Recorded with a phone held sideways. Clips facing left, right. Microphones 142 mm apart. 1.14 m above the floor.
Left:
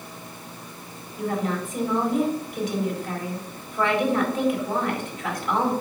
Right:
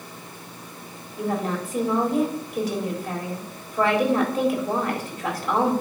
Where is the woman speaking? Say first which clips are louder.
Even; 40° right (ahead or behind), 4 m.